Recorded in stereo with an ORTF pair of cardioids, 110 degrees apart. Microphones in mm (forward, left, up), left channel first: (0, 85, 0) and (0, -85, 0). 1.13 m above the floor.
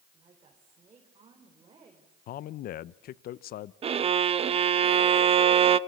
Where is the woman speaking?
30° right, 5 m.